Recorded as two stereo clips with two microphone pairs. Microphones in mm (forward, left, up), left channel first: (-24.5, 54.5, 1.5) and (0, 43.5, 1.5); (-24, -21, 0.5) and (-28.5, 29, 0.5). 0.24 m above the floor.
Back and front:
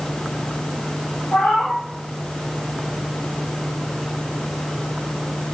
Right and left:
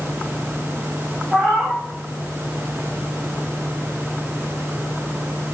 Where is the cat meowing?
175° right, 3.5 m.